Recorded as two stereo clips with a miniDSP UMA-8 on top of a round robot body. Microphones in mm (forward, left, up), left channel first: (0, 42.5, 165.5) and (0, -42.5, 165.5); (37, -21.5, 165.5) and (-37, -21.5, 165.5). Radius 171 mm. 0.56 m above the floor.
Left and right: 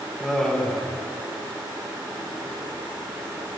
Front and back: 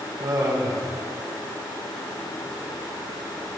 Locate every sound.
0.2 s laughter: 175° left, 4.5 m